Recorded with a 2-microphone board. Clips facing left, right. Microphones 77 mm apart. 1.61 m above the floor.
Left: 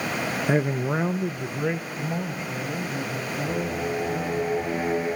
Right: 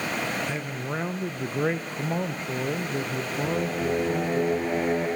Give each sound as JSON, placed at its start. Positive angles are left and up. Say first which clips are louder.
{"t": 0.5, "sound": "a man speaking", "louder": "left 8 dB", "side_deg": 50, "distance_m": 0.5}
{"t": 3.4, "sound": "singing", "louder": "right 2 dB", "side_deg": -80, "distance_m": 10.0}